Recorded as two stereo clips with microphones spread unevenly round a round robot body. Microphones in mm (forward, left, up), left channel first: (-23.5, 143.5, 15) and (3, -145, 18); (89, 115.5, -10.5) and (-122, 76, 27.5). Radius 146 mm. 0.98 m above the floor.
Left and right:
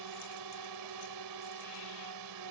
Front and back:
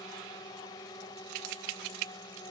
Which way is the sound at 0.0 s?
65° right.